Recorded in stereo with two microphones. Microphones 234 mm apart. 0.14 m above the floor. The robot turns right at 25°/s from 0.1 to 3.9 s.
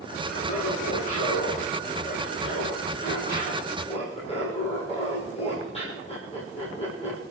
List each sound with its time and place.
0.3 s laughter: 65° left, 4 m; by 7.2 s 155° left, 4 m